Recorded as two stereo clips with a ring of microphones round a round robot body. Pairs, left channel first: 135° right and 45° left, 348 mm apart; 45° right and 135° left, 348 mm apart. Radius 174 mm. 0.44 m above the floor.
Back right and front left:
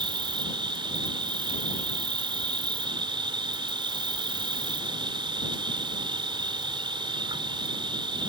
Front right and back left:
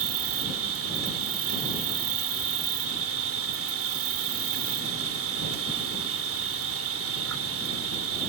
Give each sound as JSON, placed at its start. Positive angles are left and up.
{"t": 0.0, "sound": "an insect", "azimuth_deg": 115}